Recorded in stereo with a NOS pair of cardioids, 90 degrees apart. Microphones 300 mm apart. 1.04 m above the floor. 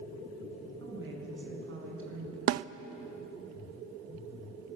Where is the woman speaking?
40° right, 8.5 m; by 2.4 s 50° right, 7.5 m.